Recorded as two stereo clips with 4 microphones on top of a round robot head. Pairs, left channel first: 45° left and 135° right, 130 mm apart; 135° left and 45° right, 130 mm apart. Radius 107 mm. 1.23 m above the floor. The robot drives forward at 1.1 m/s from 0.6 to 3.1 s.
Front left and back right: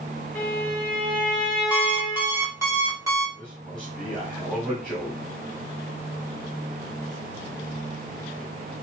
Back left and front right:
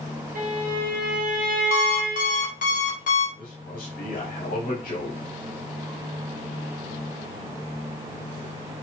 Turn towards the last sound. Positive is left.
turn(degrees=145)